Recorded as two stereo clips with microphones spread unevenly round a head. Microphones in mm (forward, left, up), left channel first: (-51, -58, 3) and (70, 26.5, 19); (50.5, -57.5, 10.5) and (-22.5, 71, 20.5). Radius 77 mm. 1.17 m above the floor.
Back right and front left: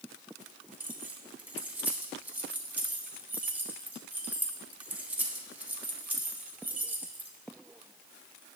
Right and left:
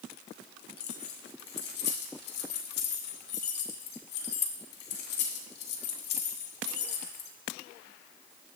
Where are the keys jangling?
45° right, 1.6 m.